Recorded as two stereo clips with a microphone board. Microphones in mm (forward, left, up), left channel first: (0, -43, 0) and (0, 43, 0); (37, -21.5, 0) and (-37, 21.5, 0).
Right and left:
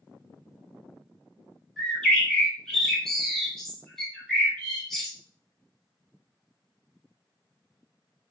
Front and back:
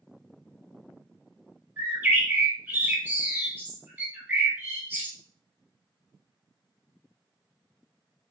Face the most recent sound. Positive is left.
turn(degrees=-170)